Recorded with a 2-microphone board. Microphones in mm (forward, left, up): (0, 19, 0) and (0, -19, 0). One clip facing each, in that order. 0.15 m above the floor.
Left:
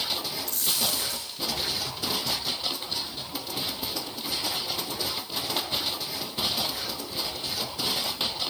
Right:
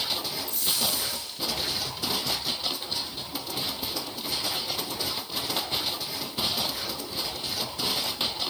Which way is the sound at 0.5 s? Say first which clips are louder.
Even; 75° left (ahead or behind).